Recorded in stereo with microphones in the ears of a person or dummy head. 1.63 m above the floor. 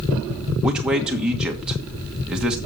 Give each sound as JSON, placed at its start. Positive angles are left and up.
{"t": 0.6, "sound": "a man speaking", "side_deg": -5, "distance_m": 1.5}